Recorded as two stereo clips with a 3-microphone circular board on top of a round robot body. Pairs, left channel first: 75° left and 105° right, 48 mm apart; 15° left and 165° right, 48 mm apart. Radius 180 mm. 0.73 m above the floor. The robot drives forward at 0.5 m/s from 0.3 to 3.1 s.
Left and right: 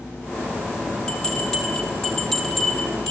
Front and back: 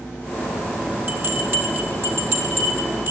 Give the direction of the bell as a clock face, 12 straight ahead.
7 o'clock.